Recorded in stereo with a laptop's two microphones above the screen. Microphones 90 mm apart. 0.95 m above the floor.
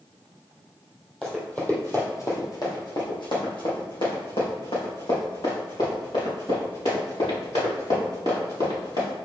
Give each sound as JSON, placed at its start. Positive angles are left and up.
{"t": 1.2, "sound": "running footsteps", "side_deg": 5, "distance_m": 1.8}